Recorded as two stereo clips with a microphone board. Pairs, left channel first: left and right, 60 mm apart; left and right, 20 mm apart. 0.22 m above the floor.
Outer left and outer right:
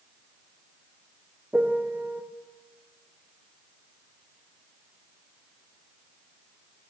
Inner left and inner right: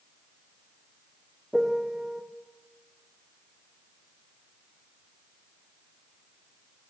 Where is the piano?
25° right (ahead or behind), 2.5 m.